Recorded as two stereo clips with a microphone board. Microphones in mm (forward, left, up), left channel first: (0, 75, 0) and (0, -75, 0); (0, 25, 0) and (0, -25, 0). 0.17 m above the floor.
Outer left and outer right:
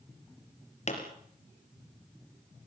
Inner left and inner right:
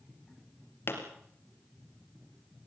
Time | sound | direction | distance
0.9 | a pop | 50° left (ahead or behind) | 3.5 m